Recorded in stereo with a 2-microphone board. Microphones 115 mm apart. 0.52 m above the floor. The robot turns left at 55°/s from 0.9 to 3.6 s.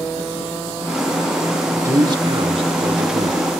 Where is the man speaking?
30° right, 1.2 m; by 3.4 s 120° right, 1.2 m.